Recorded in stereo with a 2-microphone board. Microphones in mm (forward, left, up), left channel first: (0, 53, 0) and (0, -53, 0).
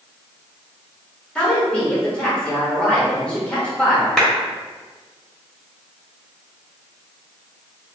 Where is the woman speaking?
10° left (ahead or behind), 2.0 m.